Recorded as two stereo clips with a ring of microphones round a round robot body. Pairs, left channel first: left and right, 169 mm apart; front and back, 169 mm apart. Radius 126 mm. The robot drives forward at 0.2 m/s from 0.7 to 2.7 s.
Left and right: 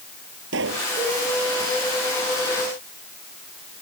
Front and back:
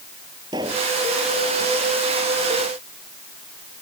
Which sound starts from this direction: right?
A pop, at 0.5 s.